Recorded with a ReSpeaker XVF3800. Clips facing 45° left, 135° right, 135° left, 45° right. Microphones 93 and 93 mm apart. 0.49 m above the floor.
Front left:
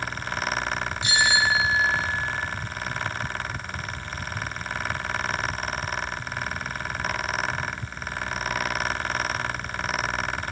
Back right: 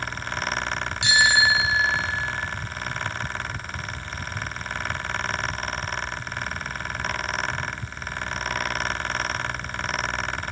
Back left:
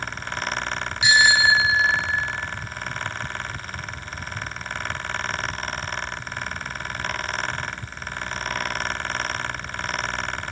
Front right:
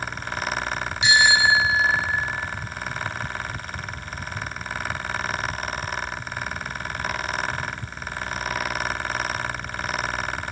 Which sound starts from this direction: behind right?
A bicycle bell, at 1.0 s.